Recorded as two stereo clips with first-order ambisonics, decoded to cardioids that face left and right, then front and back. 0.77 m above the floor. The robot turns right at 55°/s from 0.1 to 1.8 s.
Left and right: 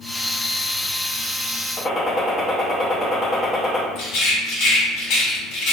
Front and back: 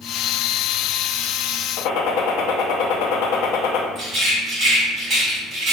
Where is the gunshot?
15° left, 0.5 m.